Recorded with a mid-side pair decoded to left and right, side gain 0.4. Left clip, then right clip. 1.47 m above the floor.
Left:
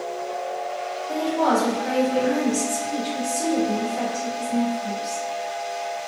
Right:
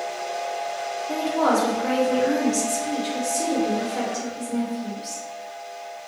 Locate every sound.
1.1 s a woman speaking: 55° right, 1.5 m